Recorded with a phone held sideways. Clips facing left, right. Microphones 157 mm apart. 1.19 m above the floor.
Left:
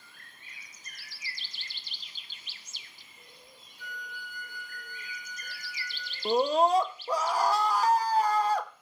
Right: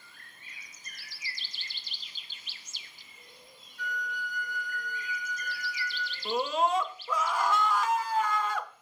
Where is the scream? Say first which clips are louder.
Left 4 dB; 35° left (ahead or behind), 0.8 m.